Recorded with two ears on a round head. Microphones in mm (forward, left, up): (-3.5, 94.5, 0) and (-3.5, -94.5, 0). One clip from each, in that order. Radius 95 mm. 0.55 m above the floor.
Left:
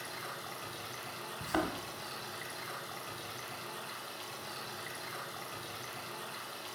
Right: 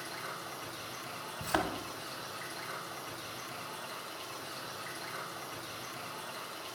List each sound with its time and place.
0.0 s running water: 15° left (ahead or behind), 1.9 m
1.4 s a thud: 20° right (ahead or behind), 1.1 m